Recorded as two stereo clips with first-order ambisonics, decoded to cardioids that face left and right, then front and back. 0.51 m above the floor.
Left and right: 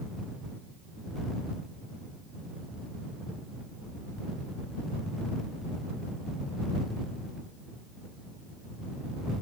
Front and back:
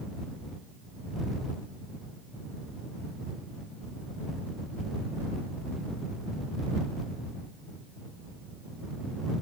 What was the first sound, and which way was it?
Only background noise.